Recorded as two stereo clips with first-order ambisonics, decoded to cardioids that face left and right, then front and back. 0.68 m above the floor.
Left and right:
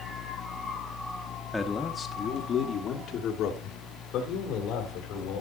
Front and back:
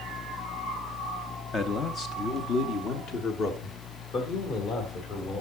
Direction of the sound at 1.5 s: 15° left.